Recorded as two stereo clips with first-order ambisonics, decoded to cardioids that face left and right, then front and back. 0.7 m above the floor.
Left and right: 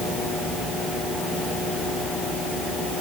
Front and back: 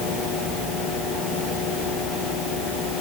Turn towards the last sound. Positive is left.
No sound to turn to.